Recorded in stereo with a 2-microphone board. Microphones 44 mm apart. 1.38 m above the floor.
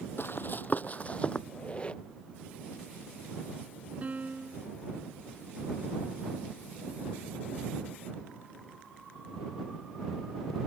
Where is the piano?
40° right (ahead or behind).